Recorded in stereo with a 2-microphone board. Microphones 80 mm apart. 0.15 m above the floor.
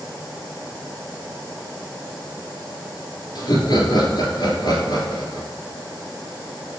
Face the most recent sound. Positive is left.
turn(degrees=60)  # may be behind; listen again after turning